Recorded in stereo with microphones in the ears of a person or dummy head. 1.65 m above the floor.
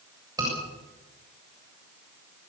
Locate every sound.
0.4 s a scream: 20° right (ahead or behind), 7 m